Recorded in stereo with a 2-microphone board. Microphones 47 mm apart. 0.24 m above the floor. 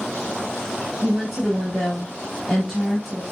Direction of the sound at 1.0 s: Centre (ahead or behind).